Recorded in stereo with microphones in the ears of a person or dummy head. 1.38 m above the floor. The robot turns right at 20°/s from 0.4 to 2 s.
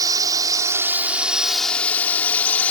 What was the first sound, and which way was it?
A drone, 20° right.